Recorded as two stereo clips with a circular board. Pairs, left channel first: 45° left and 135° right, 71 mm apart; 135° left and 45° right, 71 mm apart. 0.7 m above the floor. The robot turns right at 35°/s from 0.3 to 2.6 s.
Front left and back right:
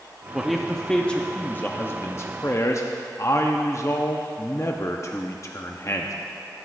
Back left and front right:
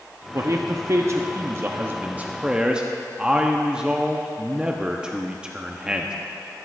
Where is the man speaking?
50° right, 0.6 m; by 6.1 s 30° left, 0.6 m.